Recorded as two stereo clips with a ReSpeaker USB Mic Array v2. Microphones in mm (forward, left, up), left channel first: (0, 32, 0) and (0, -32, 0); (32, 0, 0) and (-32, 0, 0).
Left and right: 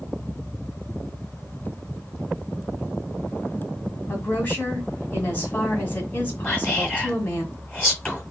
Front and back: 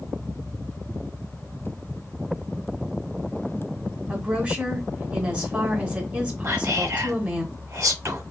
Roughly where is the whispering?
Behind left.